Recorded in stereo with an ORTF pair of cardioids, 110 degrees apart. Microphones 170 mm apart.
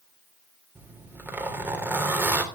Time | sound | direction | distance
0.8 | a zipper | 10° right | 3 m